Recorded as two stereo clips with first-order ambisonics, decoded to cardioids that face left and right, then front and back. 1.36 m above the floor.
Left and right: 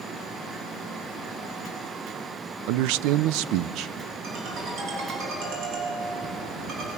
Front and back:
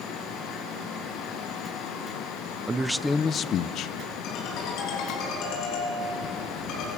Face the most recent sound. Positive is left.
turn(degrees=-35)